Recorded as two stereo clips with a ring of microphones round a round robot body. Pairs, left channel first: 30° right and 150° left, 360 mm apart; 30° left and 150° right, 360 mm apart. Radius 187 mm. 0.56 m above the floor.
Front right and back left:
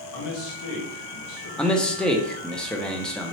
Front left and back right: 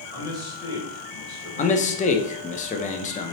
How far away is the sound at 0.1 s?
About 1.9 m.